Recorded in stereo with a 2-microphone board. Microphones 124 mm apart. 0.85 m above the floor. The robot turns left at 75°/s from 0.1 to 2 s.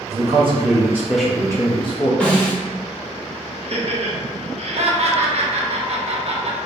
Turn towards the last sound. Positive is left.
turn(degrees=-55)  # may be behind; listen again after turning